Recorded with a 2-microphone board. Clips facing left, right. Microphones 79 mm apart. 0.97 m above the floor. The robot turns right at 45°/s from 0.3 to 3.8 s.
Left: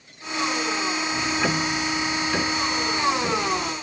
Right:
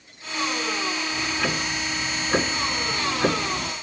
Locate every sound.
1.1 s ticking: 160° left, 1.7 m; by 3.7 s 85° right, 1.7 m